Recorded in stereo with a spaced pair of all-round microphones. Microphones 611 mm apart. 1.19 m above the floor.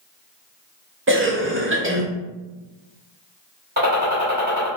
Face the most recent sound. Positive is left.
turn(degrees=-15)  # may be behind; listen again after turning